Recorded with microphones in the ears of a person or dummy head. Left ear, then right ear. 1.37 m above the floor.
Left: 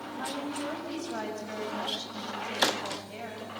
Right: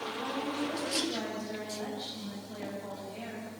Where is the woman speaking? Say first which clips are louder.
Left 2 dB; 70° left (ahead or behind), 6.5 m.